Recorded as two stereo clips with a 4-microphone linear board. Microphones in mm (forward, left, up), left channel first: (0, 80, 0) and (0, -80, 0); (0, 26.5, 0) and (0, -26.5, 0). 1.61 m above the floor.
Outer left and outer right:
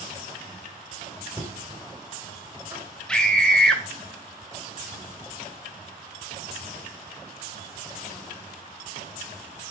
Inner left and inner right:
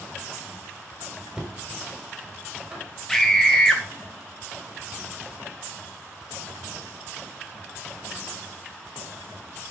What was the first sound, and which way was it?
Knocking, 15° right (ahead or behind).